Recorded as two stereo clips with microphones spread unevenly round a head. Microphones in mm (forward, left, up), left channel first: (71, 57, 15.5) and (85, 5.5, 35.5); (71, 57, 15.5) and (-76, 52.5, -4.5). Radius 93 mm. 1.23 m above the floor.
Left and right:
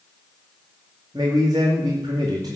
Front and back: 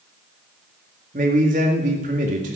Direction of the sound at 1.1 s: 125° right.